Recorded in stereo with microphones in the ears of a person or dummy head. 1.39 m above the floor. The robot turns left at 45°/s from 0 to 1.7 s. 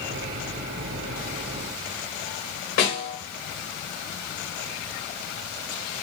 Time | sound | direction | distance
2.8 | a snare drum | 60° left (ahead or behind) | 1.6 m